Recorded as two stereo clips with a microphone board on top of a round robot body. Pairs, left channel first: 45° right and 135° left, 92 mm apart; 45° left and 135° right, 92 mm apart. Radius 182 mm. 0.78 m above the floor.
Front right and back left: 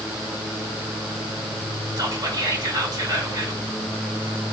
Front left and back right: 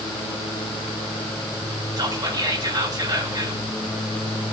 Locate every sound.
2.0 s whispering: straight behind, 2 m